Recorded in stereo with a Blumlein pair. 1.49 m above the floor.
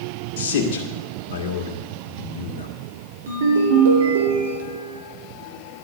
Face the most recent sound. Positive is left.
turn(degrees=-60)